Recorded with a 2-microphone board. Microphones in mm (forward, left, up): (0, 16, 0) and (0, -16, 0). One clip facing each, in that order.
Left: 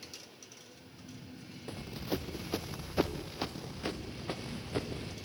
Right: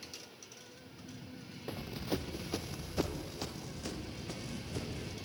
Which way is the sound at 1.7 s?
10° right (ahead or behind).